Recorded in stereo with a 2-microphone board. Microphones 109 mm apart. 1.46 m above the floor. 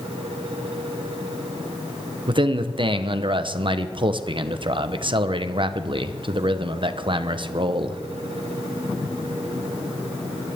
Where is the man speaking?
50° right (ahead or behind), 1.0 m.